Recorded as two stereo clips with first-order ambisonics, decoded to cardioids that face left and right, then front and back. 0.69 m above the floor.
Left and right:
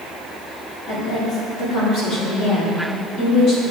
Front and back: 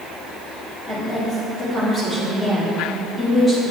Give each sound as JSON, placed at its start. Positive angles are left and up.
{"t": 0.9, "sound": "a woman speaking", "azimuth_deg": 75, "distance_m": 1.9}